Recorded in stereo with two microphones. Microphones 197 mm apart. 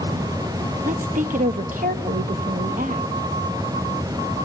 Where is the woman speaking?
45° right (ahead or behind), 0.9 m.